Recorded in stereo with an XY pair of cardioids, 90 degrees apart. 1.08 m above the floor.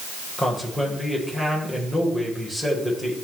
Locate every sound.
0.4 s a man speaking: 5° left, 4.5 m